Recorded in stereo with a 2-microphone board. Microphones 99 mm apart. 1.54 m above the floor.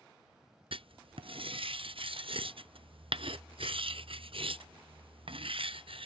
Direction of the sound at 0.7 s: 75° right (ahead or behind).